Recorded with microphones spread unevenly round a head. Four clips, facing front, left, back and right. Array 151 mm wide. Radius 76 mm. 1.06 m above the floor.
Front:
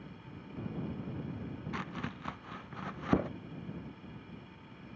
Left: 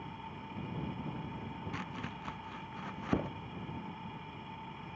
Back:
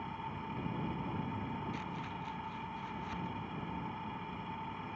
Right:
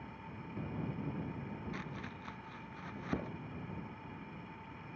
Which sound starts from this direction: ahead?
Chopping, at 1.7 s.